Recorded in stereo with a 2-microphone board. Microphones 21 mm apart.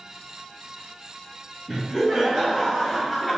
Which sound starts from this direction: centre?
Laughter, at 1.7 s.